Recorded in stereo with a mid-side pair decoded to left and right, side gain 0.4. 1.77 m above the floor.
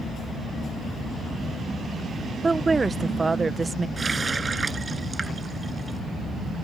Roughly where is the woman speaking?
Ahead right.